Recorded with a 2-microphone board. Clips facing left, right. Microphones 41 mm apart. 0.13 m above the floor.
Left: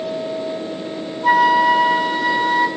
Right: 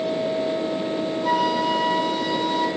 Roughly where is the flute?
Left.